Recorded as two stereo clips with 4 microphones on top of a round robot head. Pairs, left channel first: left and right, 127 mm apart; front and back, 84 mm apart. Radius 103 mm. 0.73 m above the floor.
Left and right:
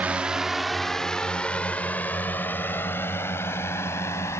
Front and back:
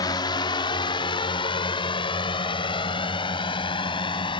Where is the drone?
10° right; by 4.4 s 20° left.